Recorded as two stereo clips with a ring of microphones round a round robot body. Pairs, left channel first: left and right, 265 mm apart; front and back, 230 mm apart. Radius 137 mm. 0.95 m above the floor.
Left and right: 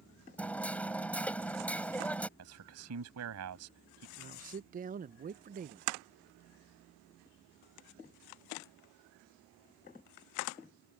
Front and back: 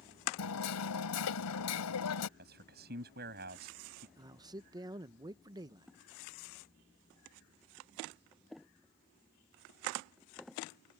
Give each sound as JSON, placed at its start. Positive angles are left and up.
{"t": 0.4, "sound": "hammering", "azimuth_deg": 5}
{"t": 2.4, "sound": "a man speaking", "azimuth_deg": -125}
{"t": 4.2, "sound": "a man speaking", "azimuth_deg": -120}